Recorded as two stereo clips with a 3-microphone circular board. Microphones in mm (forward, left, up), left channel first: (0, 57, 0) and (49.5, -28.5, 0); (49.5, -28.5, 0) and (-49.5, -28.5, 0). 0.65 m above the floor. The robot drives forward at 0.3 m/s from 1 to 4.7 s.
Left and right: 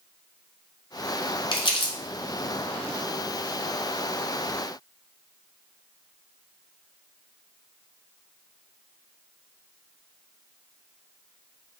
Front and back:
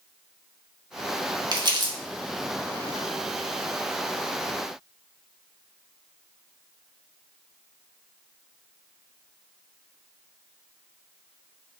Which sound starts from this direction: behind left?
Crumpling, at 1.5 s.